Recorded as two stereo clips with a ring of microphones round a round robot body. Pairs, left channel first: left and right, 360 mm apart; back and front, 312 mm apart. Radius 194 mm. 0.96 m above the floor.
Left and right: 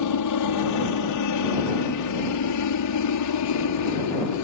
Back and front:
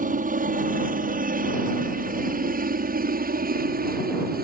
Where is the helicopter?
60° left; by 4.4 s 55° left.